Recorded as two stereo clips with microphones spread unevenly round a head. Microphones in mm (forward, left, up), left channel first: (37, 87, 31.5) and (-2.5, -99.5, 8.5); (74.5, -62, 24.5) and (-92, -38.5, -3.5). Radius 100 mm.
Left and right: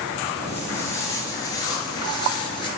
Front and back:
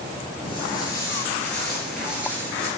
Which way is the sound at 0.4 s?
15° left.